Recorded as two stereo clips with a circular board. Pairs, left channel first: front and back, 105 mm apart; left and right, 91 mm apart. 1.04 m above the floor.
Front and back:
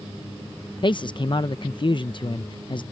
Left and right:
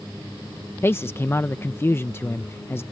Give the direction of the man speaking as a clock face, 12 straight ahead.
11 o'clock.